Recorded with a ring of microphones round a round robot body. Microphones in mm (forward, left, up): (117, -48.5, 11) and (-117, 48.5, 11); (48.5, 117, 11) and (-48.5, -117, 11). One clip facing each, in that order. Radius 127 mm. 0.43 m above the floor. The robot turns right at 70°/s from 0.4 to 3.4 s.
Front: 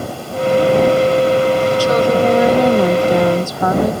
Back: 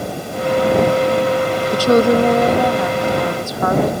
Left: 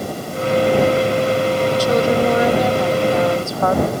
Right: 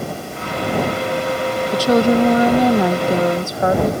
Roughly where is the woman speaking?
Behind right.